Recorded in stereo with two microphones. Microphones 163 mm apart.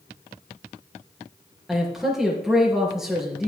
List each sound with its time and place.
1.7 s a man speaking: centre (ahead or behind), 4 m